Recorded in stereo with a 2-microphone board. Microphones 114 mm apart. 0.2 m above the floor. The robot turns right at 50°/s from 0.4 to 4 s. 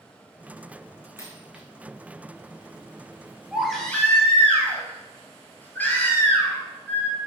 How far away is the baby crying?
About 1.6 m.